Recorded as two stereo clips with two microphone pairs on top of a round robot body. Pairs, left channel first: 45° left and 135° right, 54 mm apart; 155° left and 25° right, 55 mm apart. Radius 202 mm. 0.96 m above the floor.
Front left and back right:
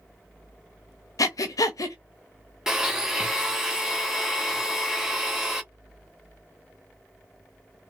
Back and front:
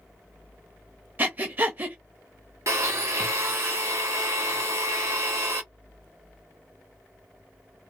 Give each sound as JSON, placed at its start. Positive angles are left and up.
{"t": 1.2, "sound": "breathing", "azimuth_deg": 35, "distance_m": 0.6}
{"t": 2.7, "sound": "a blender", "azimuth_deg": -55, "distance_m": 1.4}